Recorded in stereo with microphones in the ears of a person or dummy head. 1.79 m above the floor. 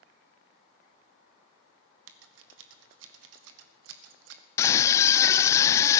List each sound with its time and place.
2.1 s scissors: 75° right (ahead or behind), 1.0 m
4.6 s a scream: 15° left (ahead or behind), 0.5 m